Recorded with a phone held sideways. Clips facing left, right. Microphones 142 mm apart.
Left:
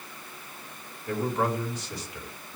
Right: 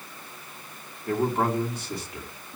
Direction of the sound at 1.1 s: 50° right (ahead or behind).